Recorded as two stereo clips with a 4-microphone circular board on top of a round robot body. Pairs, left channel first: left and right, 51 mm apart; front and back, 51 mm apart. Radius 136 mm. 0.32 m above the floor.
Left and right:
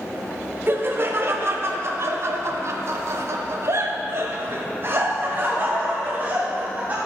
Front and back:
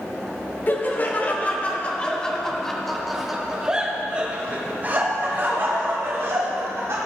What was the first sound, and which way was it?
Laughter, 50° right.